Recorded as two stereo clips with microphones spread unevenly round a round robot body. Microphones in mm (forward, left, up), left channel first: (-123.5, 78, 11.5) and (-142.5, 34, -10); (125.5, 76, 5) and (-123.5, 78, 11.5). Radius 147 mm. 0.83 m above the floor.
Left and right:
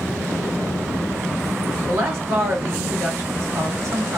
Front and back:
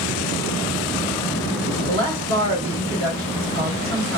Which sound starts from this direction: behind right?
A woman speaking, at 1.9 s.